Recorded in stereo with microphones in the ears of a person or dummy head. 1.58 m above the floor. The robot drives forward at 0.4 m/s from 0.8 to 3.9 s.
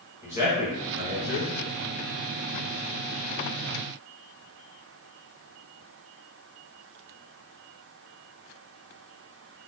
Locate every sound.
0.2 s a man speaking: 15° right (ahead or behind), 1.6 m